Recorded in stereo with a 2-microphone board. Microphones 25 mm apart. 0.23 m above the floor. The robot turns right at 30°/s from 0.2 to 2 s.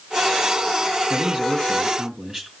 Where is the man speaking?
40° right (ahead or behind), 3 m; by 2.5 s 20° right (ahead or behind), 3 m.